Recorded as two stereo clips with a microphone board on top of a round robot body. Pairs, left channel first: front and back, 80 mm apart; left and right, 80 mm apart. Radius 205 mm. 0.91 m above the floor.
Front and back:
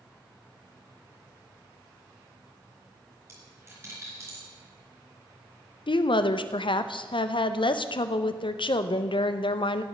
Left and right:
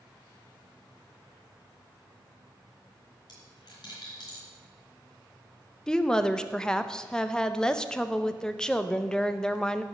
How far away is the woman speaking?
About 0.7 m.